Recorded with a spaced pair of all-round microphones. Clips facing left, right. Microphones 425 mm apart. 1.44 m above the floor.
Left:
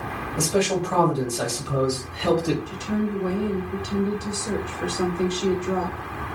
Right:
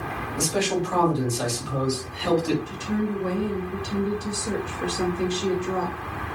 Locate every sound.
0.4 s a man speaking: 65° left (ahead or behind), 1.0 m
2.7 s a woman speaking: 5° right (ahead or behind), 0.9 m